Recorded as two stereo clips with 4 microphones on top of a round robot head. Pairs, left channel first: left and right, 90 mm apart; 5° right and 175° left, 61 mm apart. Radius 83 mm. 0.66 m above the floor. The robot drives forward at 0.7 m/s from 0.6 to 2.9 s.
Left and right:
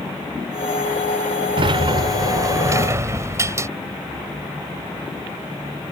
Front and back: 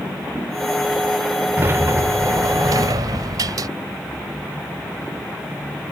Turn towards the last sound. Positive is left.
turn(degrees=-150)